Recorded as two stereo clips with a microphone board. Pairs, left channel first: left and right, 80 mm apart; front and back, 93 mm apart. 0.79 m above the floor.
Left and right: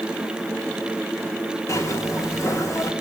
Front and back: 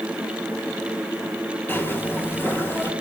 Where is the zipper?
55° left, 1.3 m.